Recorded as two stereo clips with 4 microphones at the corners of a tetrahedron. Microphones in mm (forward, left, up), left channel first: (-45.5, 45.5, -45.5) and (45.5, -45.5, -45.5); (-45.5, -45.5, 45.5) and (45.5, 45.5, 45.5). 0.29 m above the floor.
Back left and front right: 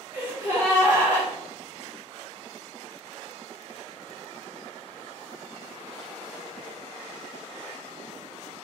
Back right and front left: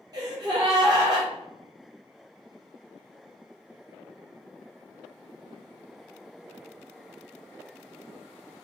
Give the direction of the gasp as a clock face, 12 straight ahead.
9 o'clock.